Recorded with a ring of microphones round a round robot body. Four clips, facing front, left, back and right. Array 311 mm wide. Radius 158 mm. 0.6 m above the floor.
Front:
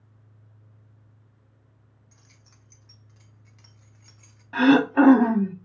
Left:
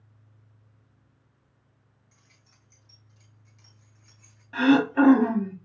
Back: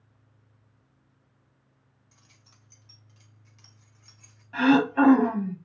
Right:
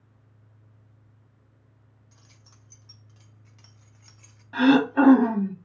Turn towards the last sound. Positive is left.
turn(degrees=-10)